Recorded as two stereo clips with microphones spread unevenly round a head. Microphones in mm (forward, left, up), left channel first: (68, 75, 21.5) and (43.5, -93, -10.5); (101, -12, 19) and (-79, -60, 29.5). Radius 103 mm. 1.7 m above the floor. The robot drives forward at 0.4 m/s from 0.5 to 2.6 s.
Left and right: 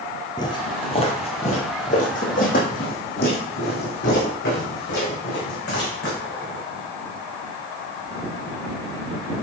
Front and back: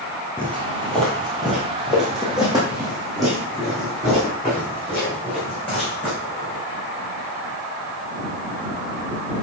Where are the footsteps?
100° left, 1.9 m.